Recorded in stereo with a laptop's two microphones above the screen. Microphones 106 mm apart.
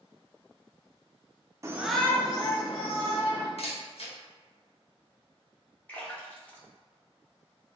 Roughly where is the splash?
Centre.